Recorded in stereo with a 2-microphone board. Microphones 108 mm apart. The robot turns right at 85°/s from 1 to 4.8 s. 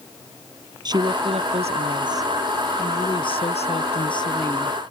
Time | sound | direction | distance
0.8 | a woman speaking | 135° right | ?